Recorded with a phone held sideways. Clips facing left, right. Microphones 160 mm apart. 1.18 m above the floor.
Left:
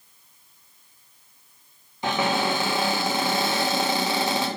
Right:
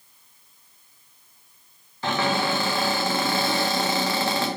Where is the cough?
I don't hear a cough.